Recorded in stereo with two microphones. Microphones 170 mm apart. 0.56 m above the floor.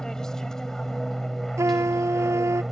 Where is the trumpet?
15° right (ahead or behind).